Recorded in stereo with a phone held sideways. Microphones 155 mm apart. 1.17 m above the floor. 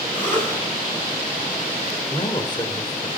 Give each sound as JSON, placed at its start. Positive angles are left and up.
{"t": 0.1, "sound": "a cough", "side_deg": -50, "distance_m": 7.5}
{"t": 2.1, "sound": "a man speaking", "side_deg": 30, "distance_m": 4.5}